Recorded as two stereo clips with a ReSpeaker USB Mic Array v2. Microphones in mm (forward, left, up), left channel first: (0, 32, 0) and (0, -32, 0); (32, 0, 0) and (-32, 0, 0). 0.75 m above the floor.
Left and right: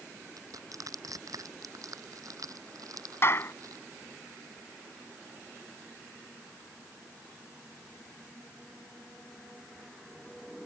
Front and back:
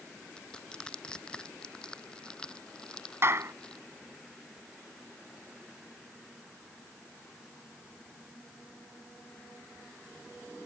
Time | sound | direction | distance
0.4 | crushing | 75° right | ?
3.2 | a clap | 135° left | ?